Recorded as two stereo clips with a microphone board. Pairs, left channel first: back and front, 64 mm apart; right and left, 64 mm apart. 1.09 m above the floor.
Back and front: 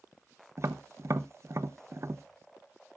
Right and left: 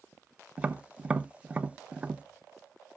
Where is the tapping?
25° left, 0.6 m.